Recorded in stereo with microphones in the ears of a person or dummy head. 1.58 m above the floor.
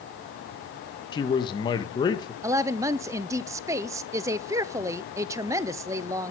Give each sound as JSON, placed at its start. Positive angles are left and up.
{"t": 1.1, "sound": "a man speaking", "side_deg": 30, "distance_m": 1.8}
{"t": 2.4, "sound": "a woman speaking", "side_deg": -20, "distance_m": 0.6}